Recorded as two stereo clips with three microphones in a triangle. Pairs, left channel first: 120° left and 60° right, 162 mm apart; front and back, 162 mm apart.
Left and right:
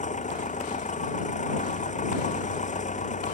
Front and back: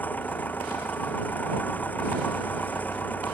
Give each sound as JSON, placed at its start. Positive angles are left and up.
{"t": 0.0, "sound": "an engine running", "azimuth_deg": 80}